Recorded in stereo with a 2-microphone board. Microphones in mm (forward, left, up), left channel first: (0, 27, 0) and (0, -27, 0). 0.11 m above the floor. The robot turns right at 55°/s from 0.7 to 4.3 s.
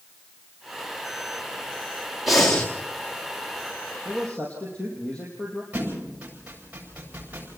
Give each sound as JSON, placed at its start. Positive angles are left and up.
{"t": 2.3, "sound": "breathing", "side_deg": 0, "distance_m": 2.5}
{"t": 4.0, "sound": "a man speaking", "side_deg": 10, "distance_m": 4.0}
{"t": 5.7, "sound": "a thud", "side_deg": -25, "distance_m": 8.5}